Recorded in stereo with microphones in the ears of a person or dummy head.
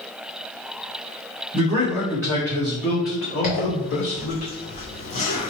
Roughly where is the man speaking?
Centre.